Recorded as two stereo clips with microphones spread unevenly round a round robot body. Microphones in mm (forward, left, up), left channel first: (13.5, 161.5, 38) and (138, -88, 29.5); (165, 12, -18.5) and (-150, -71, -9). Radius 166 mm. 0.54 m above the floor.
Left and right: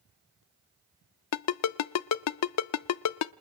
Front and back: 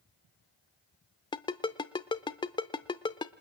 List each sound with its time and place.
1.3 s a ringtone: 90° left, 0.6 m